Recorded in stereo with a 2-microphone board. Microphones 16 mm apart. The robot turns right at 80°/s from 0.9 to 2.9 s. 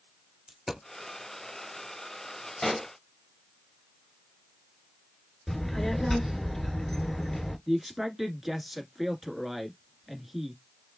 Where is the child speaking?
20° left (ahead or behind), 1.2 m.